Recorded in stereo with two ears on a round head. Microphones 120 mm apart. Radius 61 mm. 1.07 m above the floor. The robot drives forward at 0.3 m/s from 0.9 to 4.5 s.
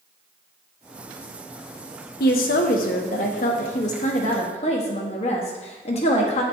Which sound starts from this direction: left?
A woman speaking, at 2.2 s.